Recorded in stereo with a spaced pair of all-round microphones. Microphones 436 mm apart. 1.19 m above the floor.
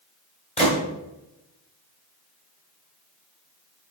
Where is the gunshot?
15° left (ahead or behind), 2.5 m.